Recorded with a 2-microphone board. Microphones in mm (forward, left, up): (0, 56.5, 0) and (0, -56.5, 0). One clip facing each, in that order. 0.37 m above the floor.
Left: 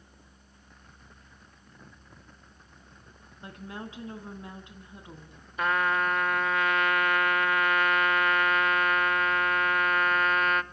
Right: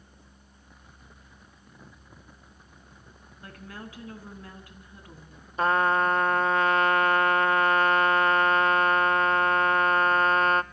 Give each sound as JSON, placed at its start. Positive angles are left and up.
{"t": 3.4, "sound": "a woman speaking", "side_deg": 20, "distance_m": 4.5}
{"t": 5.6, "sound": "a trumpet", "side_deg": -30, "distance_m": 0.6}